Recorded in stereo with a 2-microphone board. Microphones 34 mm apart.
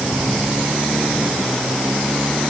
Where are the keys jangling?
I don't hear keys jangling.